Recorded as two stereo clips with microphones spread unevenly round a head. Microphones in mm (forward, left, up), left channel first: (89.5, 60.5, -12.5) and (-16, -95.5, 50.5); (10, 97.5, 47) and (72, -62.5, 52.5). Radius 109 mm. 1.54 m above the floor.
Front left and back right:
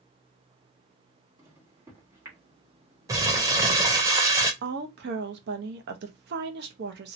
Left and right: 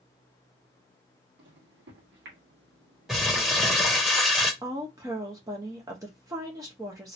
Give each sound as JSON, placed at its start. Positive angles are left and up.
{"t": 1.4, "sound": "a microwave", "azimuth_deg": -55, "distance_m": 1.6}
{"t": 3.1, "sound": "crumpling", "azimuth_deg": -155, "distance_m": 0.6}
{"t": 4.6, "sound": "a woman speaking", "azimuth_deg": -140, "distance_m": 0.6}